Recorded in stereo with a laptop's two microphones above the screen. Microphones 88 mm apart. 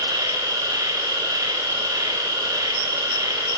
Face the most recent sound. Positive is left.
turn(degrees=-50)  # may be behind; listen again after turning